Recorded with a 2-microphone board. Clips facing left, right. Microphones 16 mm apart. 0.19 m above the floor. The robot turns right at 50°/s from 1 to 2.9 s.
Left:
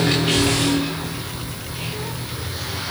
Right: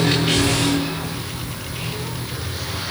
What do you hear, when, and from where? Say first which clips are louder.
0.2 s a child speaking: even; 5° right (ahead or behind), 2 m; by 2.9 s 70° left (ahead or behind), 2 m